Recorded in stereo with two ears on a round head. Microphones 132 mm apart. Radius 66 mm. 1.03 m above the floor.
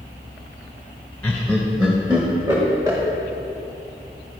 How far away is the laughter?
About 0.8 m.